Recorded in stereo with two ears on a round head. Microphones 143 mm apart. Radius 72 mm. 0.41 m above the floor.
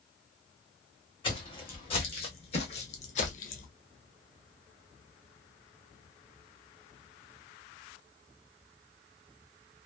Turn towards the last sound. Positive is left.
turn(degrees=55)  # may be behind; listen again after turning